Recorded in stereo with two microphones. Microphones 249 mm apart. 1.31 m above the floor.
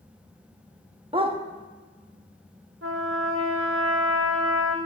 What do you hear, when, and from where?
1.1 s a dog barking: 20° right (ahead or behind), 0.7 m
2.8 s a trumpet: 60° right (ahead or behind), 1.2 m